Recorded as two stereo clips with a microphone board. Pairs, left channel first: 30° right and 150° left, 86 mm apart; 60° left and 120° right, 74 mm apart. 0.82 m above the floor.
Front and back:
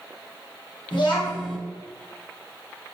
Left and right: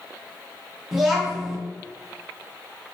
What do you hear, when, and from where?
0.9 s a child speaking: 35° right, 0.8 m